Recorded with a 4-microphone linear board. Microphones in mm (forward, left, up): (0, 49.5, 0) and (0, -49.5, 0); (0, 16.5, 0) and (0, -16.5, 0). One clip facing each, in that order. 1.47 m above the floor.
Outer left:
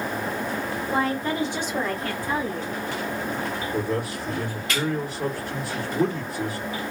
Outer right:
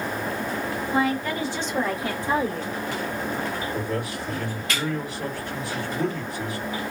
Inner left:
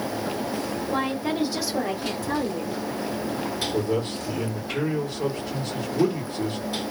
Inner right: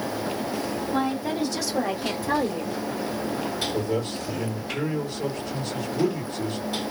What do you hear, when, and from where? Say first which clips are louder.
0.9 s a woman speaking: outer right 1 dB, even; 40° left (ahead or behind), 1.4 m; by 2.8 s 45° right (ahead or behind), 1.3 m
3.7 s a man speaking: outer left 2 dB, inner left 1 dB; 30° left (ahead or behind), 1.5 m